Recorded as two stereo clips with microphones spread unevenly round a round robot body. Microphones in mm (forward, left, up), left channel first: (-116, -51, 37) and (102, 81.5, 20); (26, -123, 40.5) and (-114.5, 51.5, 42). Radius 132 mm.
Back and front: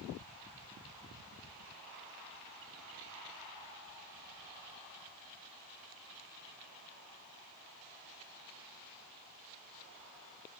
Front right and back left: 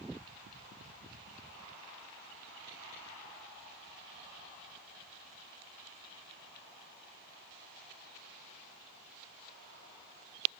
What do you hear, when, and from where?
Only background noise.